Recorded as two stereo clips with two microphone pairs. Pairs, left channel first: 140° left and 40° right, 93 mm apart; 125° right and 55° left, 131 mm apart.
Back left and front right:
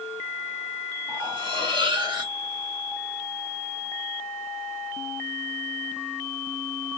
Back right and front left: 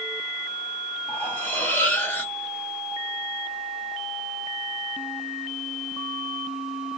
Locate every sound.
1.1 s cutlery clinking: 50° right, 1.3 m